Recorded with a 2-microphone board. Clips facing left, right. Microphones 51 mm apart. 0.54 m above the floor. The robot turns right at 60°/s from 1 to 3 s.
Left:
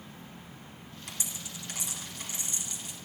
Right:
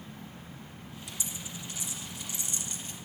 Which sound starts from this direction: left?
A dropped coin, at 1.1 s.